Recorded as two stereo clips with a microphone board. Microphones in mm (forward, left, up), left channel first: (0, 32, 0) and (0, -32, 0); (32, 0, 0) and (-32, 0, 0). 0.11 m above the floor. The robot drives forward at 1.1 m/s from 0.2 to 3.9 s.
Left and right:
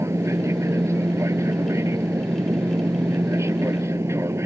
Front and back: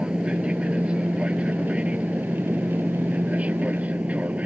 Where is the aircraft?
110° right; by 4.5 s 115° right.